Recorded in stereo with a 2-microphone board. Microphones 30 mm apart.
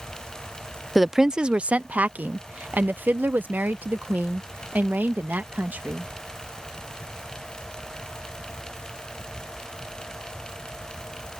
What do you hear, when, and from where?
0.9 s a woman speaking: 5° right (ahead or behind); by 6.1 s 85° right